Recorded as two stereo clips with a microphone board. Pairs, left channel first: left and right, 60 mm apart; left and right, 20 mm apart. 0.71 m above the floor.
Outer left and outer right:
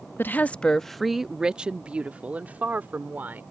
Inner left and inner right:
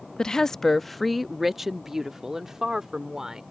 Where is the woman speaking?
35° left (ahead or behind); by 3.4 s 35° right (ahead or behind).